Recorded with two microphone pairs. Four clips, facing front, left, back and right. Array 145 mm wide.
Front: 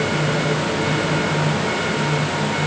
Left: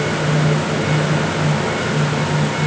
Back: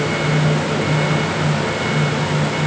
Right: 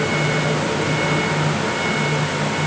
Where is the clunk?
No clunk in this recording.